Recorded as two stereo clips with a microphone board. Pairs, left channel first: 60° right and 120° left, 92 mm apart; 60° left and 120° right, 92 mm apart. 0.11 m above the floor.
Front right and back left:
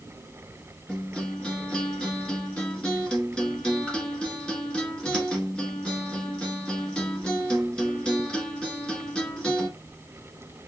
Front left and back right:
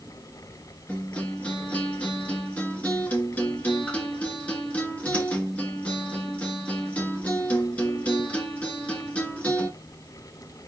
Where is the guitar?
5° left, 1.4 m.